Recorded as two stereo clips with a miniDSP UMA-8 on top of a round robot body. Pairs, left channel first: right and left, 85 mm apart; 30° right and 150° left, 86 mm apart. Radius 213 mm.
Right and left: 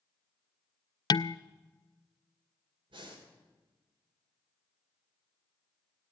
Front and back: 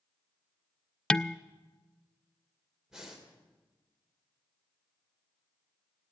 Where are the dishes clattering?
110° right, 0.5 m.